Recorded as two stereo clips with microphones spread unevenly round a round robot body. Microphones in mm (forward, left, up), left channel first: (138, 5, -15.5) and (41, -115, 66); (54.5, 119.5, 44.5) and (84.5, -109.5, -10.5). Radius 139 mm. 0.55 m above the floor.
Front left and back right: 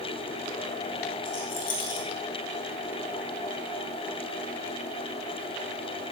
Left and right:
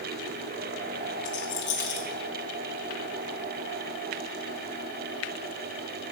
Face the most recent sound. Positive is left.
turn(degrees=55)